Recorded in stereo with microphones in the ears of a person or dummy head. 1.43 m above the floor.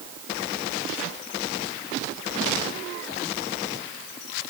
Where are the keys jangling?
I don't hear keys jangling.